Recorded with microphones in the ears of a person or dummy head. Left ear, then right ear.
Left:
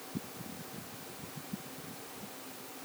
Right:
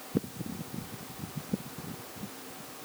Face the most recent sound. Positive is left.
No sound to turn to.